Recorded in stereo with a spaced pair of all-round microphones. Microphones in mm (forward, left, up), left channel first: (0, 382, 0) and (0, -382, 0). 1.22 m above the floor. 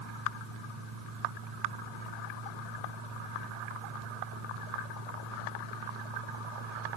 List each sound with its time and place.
0.0 s a fan: 80° right, 6 m